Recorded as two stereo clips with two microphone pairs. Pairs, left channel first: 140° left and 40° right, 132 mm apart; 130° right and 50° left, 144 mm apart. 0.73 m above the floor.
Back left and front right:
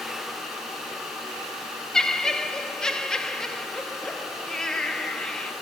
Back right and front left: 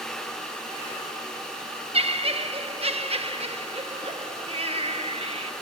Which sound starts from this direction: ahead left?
Laughter, at 1.9 s.